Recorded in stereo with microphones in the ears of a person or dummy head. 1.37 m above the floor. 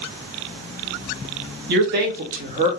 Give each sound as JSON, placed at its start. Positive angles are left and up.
{"t": 1.7, "sound": "a man speaking", "side_deg": -55, "distance_m": 1.0}